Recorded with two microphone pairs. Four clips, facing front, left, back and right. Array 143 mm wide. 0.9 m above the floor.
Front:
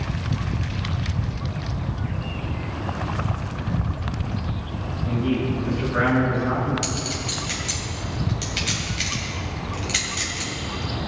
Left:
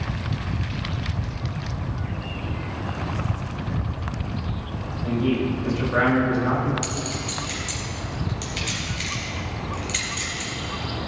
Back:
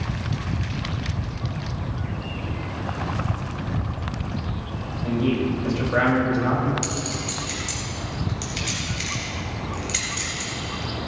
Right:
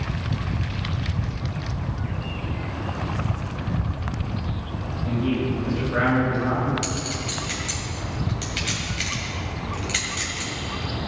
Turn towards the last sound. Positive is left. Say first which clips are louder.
# even, even
turn(degrees=-40)